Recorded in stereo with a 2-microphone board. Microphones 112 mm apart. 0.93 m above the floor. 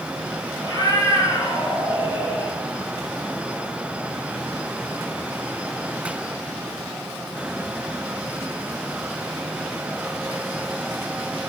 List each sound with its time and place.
0.6 s a cat meowing: 35° left (ahead or behind), 6 m; by 2.5 s 50° left (ahead or behind), 6 m